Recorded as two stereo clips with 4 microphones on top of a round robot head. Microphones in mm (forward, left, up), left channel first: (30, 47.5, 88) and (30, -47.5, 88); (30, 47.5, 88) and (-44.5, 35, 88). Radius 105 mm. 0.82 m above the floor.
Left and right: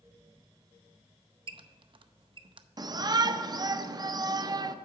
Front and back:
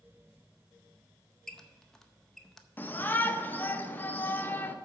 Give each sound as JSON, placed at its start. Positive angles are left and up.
{"t": 1.5, "sound": "a squeak", "azimuth_deg": -75, "distance_m": 0.7}
{"t": 2.8, "sound": "a shout", "azimuth_deg": -50, "distance_m": 0.7}